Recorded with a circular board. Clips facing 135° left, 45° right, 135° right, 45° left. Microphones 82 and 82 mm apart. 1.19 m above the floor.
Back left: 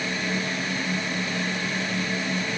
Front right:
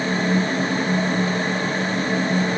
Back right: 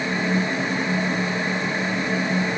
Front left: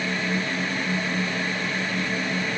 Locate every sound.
Only background noise.